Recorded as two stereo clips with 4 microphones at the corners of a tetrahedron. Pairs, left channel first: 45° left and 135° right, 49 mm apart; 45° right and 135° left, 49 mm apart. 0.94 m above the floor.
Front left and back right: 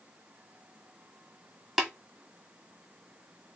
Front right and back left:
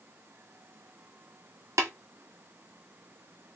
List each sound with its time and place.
1.8 s tapping: 140° left, 1.9 m